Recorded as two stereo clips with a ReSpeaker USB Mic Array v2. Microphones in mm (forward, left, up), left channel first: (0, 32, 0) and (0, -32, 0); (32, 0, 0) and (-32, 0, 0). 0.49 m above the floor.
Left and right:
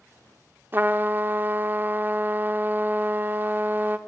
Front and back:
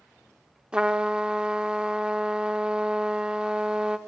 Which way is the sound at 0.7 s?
110° right.